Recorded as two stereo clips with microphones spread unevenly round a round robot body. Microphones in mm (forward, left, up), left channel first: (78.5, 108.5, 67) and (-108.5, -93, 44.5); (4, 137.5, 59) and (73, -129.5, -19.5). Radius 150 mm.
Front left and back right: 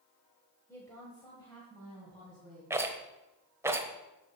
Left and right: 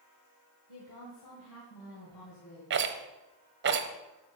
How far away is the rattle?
About 1.0 m.